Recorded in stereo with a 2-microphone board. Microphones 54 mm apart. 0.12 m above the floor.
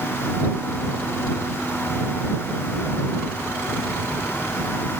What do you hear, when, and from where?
Only background noise.